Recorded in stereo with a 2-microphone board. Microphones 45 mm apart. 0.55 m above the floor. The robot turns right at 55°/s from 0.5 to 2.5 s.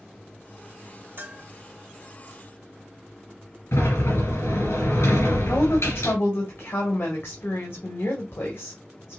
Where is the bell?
50° right (ahead or behind), 0.9 m; by 1.5 s 35° right (ahead or behind), 0.9 m.